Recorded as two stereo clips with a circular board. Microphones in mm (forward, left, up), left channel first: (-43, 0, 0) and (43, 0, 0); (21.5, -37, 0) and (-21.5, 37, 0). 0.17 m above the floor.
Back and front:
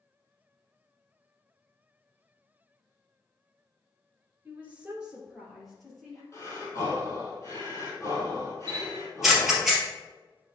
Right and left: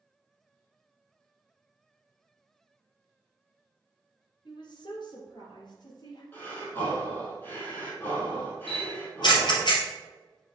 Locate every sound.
4.5 s a woman speaking: 65° right, 2 m; by 6.2 s 95° right, 3.5 m
6.3 s breathing: 125° right, 3 m
8.7 s a camera shutter: 85° right, 2.5 m